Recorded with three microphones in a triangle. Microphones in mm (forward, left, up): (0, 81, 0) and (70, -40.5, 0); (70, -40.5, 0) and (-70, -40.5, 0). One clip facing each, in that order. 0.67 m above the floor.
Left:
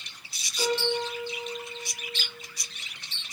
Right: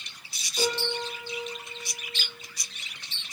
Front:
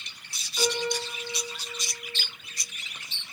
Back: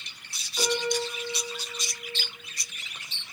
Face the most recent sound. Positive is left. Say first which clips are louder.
# left 2 dB, back 1 dB
turn(degrees=-100)